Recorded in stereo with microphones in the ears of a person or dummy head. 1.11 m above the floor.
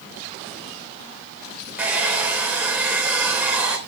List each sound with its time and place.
1.8 s a hair dryer: 10° right (ahead or behind), 3 m